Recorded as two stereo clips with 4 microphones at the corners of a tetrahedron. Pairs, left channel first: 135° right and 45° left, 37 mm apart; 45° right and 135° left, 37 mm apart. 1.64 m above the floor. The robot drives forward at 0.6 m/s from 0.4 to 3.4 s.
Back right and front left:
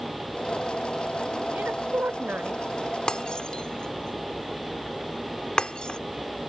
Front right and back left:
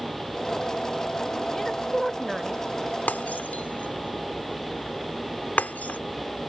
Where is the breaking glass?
70° right; by 6.0 s 75° right.